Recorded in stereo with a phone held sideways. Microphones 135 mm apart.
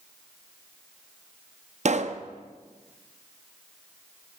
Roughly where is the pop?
Right.